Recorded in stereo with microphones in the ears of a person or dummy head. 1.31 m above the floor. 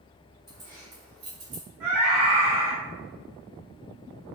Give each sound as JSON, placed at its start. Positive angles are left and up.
{"t": 0.5, "sound": "keys jangling", "side_deg": 15, "distance_m": 2.5}
{"t": 1.8, "sound": "a scream", "side_deg": -5, "distance_m": 2.5}